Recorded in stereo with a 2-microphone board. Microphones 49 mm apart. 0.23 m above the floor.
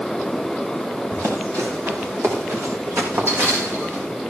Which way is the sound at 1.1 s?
70° right (ahead or behind).